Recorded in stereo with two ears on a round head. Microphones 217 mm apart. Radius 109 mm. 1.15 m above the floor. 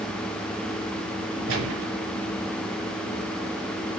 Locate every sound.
1.5 s a gunshot: 60° right (ahead or behind), 3.5 m